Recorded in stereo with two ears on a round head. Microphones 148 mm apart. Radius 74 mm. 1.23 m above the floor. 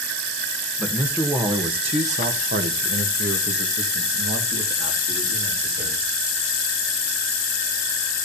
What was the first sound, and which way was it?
A man speaking, centre (ahead or behind).